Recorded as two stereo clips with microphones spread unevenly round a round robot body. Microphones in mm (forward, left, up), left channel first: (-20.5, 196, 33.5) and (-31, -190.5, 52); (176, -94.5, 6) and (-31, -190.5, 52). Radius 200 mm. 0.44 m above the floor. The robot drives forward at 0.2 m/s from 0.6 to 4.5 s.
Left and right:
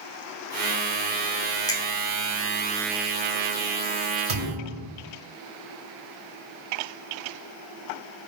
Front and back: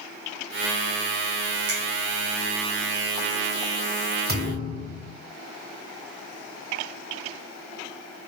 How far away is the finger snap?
About 0.7 m.